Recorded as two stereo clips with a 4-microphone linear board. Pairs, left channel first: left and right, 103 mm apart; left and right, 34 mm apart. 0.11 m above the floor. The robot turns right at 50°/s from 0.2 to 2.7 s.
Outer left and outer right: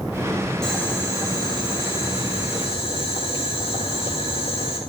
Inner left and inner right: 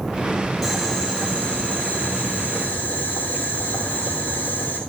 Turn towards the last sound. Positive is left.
turn(degrees=110)